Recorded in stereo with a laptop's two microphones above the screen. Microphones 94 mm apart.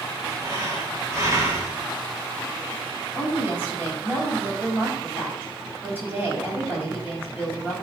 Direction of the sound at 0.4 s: 30° right (ahead or behind).